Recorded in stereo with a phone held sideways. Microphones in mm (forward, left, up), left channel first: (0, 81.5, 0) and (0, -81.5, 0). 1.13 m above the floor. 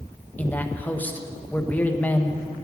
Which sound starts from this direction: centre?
A man speaking, at 0.4 s.